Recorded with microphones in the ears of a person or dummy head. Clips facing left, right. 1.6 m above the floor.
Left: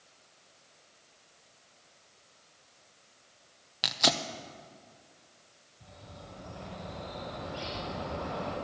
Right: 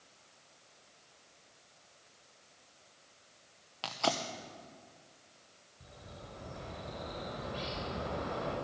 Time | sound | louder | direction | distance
3.8 | tearing paper | left 2 dB | 25° left (ahead or behind) | 0.7 m
5.8 | a bird | left 1 dB | 30° right (ahead or behind) | 4.5 m